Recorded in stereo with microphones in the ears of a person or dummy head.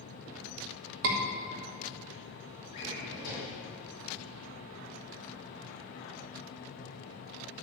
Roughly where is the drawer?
Left.